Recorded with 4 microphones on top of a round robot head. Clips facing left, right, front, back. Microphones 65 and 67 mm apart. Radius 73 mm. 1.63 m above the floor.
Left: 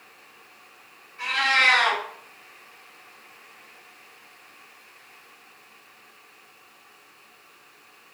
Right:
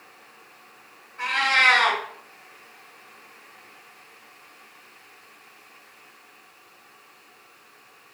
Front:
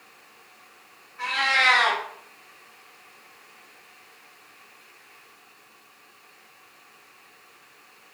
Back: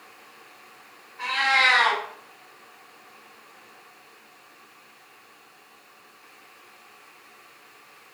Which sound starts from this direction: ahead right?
A cat meowing, at 1.2 s.